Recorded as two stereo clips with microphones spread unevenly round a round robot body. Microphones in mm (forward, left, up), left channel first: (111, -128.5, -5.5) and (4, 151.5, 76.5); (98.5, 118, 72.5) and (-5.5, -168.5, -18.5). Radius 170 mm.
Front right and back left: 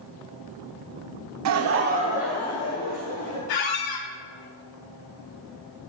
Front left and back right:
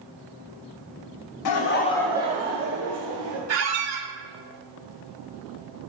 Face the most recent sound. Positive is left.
turn(degrees=-75)